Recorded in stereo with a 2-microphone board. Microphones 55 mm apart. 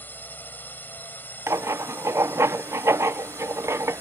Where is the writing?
55° right (ahead or behind).